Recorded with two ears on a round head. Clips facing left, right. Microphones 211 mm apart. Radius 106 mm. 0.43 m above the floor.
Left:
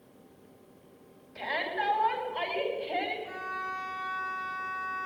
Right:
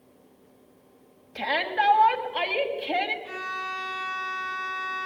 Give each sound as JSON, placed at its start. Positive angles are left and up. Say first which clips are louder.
{"t": 1.4, "sound": "a shout", "louder": "right 5 dB", "side_deg": -65, "distance_m": 3.0}
{"t": 3.2, "sound": "a violin", "louder": "right 3 dB", "side_deg": -45, "distance_m": 1.3}